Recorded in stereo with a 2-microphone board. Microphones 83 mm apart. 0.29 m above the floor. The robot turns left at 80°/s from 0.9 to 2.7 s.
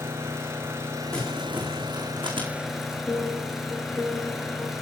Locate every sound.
0.0 s an engine running: 35° right, 4 m; by 4.8 s straight behind, 4 m
1.1 s crumpling: 15° left (ahead or behind), 6 m; by 3.0 s 65° right (ahead or behind), 6 m
3.1 s a piano: centre (ahead or behind), 4.5 m